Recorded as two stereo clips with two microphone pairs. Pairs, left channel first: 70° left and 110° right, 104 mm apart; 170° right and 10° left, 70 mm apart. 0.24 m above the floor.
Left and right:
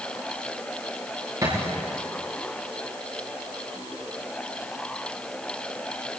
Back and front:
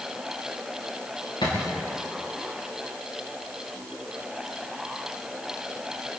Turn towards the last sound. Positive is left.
turn(degrees=-170)